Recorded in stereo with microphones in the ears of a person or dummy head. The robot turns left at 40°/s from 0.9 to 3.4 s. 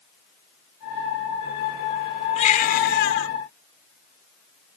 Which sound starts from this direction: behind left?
A baby crying, at 2.4 s.